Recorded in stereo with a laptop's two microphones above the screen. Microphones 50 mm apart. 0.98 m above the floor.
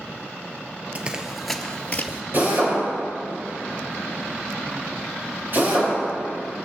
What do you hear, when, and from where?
0.9 s running footsteps: 30° right (ahead or behind), 1.2 m; by 2.2 s 45° left (ahead or behind), 1.4 m
2.3 s a drill: 45° right (ahead or behind), 5.5 m